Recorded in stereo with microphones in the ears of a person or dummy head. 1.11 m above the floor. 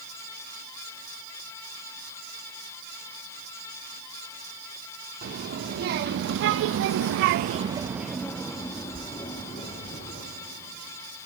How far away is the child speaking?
About 1.8 m.